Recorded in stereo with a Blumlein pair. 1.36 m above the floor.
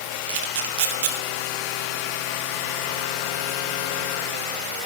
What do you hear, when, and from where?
0.3 s a camera shutter: 50° right, 2.5 m